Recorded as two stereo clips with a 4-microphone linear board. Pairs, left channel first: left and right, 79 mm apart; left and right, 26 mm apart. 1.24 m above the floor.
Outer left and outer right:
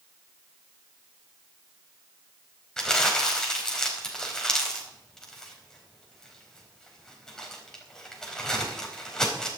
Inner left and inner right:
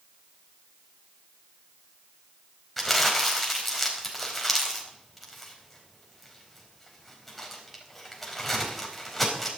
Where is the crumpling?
10° left (ahead or behind), 4 m.